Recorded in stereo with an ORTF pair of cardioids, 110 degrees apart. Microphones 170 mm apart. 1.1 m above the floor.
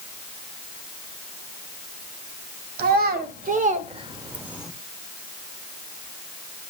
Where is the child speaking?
70° right, 1.6 m; by 4.7 s straight ahead, 1.0 m.